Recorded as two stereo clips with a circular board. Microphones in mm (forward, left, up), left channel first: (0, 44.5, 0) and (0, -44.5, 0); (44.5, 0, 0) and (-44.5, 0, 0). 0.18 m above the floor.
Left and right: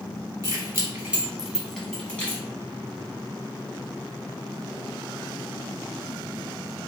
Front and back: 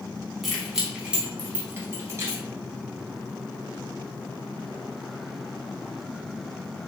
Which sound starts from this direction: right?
Keys jangling, at 0.4 s.